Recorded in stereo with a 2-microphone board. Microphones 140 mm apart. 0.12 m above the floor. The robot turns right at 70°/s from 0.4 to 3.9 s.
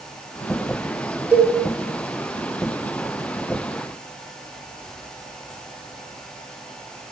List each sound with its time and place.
1.3 s a cowbell: 10° right (ahead or behind), 1.1 m; by 1.5 s 5° left (ahead or behind), 1.1 m